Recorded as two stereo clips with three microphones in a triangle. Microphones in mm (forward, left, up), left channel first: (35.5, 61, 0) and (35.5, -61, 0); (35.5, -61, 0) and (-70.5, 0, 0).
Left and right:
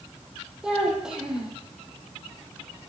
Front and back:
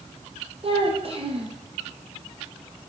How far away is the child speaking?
About 3.5 m.